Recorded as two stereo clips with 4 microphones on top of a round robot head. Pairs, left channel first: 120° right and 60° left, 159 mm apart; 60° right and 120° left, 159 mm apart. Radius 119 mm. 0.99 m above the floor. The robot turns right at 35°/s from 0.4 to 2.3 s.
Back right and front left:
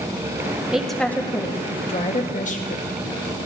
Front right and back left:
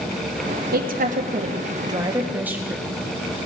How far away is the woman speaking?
About 1.7 m.